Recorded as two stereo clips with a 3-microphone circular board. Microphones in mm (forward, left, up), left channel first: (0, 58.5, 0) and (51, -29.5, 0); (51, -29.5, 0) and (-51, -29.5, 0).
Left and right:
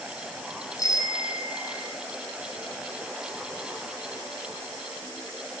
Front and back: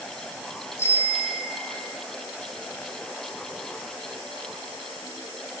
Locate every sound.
0.8 s a bicycle bell: 65° left, 4 m